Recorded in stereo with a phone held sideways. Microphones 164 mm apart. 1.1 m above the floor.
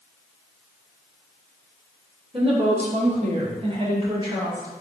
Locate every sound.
2.3 s a woman speaking: 35° right (ahead or behind), 0.8 m; by 4.7 s 20° right (ahead or behind), 1.7 m